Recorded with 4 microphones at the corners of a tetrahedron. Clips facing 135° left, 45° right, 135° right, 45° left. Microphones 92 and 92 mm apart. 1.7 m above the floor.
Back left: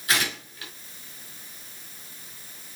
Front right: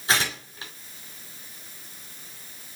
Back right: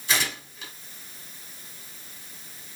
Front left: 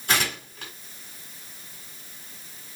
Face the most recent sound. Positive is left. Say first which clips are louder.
# front right 2 dB, front left 2 dB
turn(degrees=15)